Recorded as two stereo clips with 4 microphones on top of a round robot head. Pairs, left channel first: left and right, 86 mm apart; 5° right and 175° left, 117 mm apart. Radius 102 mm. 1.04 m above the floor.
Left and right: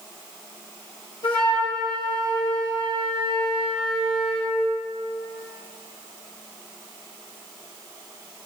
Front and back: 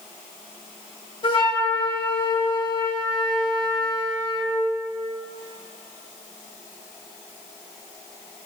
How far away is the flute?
About 1.8 m.